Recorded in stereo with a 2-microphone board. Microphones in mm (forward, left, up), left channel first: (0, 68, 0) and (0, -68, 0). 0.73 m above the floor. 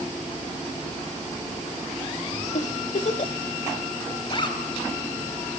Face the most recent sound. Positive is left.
turn(degrees=40)  # may be behind; listen again after turning